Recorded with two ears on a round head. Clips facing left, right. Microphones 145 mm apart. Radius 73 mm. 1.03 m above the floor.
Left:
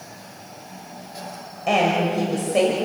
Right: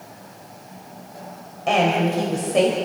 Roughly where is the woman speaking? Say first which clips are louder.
Right 1 dB; centre.